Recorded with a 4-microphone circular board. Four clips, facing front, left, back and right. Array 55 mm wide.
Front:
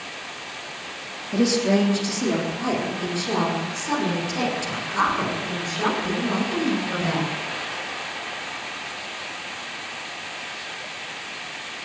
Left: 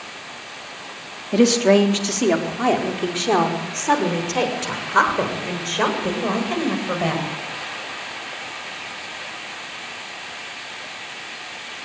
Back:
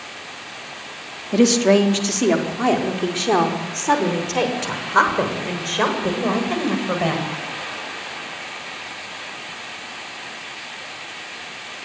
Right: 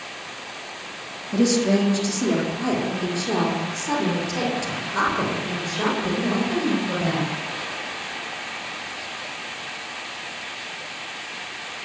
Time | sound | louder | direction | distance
1.3 | a woman speaking | left 5 dB, back 5 dB | 120° left | 3.5 m